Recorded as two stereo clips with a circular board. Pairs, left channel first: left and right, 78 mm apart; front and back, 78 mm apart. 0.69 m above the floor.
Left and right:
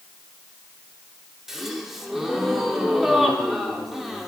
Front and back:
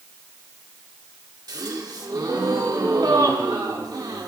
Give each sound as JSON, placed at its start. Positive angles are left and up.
{"t": 1.5, "sound": "a gasp", "azimuth_deg": -175, "distance_m": 1.9}